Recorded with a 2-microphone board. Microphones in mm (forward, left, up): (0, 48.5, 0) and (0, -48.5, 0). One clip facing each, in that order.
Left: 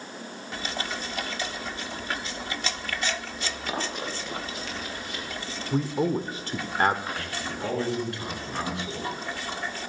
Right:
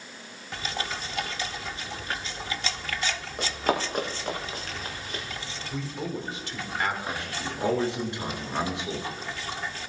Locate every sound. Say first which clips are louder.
3.4 s running footsteps: right 9 dB; 50° right (ahead or behind), 7 m; by 5.2 s 40° right (ahead or behind), 6.5 m
5.7 s a man speaking: left 8 dB; 40° left (ahead or behind), 1.3 m
7.1 s a man speaking: even; 20° right (ahead or behind), 6 m